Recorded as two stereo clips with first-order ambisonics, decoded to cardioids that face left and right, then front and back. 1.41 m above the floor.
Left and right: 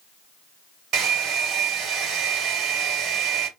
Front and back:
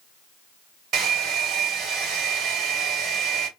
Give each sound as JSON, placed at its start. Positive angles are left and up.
{"t": 0.9, "sound": "a hair dryer", "azimuth_deg": -140, "distance_m": 2.0}